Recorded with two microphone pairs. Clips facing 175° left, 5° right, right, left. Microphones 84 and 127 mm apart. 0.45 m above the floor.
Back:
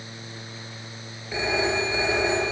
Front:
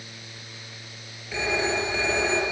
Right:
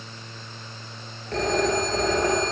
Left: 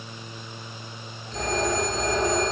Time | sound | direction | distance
1.3 | a phone ringing | 110° right | 6 m